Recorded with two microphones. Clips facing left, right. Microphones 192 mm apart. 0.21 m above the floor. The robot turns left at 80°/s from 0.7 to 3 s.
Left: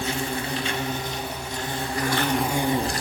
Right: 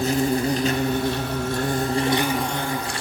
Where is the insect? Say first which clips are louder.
Right 8 dB; 45° right, 0.9 m; by 3.0 s 135° left, 0.9 m.